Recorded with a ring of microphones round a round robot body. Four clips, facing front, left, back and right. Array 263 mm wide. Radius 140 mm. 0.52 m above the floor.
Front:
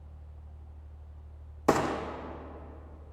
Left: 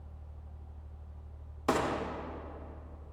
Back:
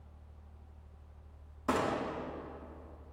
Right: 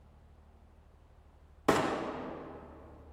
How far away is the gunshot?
About 0.6 m.